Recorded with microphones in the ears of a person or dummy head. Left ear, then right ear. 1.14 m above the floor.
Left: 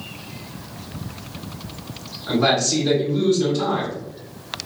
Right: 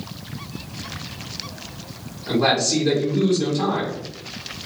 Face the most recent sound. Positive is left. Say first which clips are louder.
# even
turn(degrees=-5)  # may be behind; listen again after turning